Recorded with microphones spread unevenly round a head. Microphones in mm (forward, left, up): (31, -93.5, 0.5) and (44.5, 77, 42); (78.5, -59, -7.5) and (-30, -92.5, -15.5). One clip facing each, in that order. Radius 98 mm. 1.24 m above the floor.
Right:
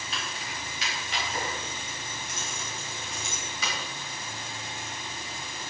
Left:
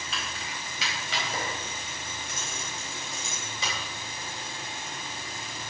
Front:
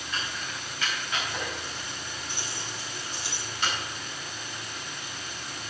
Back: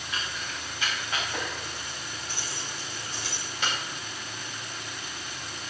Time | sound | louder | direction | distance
0.1 | keys jangling | right 1 dB, even | 110° left | 5 m